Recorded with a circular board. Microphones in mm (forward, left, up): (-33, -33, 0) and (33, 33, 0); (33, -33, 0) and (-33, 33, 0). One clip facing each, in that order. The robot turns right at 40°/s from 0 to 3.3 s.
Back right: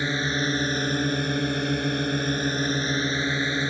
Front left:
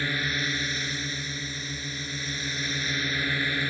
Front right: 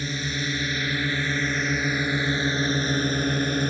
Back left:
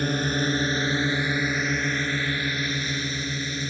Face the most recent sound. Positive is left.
turn(degrees=-70)